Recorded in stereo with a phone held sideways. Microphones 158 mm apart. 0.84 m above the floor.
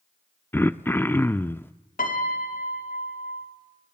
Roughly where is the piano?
Left.